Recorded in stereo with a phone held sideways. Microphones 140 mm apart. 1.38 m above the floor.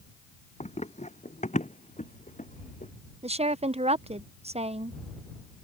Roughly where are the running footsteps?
Left.